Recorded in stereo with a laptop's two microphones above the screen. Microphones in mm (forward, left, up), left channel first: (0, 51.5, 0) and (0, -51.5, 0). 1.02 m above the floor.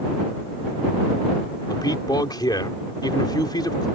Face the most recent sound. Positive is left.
turn(degrees=40)  # may be behind; listen again after turning